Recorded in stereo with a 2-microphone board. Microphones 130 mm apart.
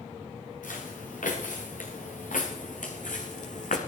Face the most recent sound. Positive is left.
turn(degrees=75)  # may be behind; listen again after turning